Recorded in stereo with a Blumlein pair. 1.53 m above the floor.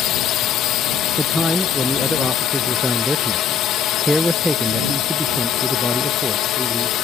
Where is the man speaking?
Straight ahead.